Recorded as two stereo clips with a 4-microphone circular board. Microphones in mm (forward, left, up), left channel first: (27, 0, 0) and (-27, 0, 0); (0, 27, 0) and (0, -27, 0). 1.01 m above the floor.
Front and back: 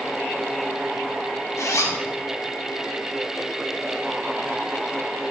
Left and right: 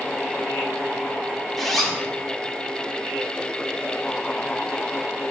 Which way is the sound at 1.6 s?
5° left.